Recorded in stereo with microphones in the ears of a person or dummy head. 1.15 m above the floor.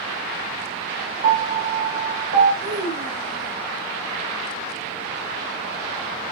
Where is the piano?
60° right (ahead or behind), 1.5 m.